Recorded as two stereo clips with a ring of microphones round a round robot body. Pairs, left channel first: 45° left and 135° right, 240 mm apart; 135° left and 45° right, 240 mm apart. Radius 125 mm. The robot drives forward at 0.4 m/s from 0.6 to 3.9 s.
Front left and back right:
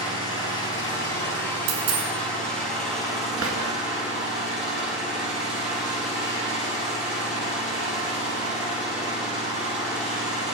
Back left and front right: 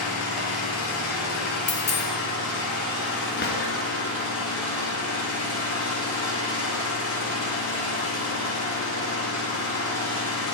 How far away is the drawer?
About 1.6 m.